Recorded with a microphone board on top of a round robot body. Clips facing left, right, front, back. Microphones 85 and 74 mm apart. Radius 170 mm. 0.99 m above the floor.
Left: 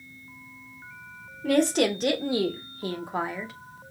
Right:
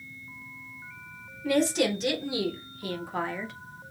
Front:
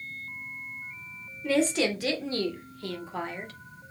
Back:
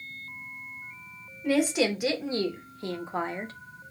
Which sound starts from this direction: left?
A woman speaking, at 1.4 s.